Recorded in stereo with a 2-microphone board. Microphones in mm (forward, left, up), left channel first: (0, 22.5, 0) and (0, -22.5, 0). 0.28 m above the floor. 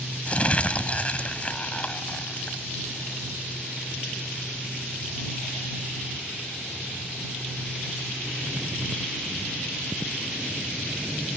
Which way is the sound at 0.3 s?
30° left (ahead or behind).